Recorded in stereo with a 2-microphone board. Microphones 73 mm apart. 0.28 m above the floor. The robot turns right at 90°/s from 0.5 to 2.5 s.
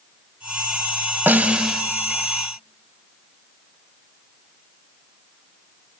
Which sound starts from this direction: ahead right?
A snare drum, at 1.3 s.